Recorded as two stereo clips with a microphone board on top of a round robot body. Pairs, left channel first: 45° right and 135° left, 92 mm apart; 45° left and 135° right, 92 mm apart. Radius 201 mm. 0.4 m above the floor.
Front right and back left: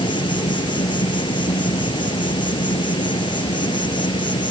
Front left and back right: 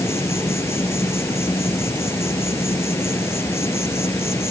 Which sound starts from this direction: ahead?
An insect, at 0.0 s.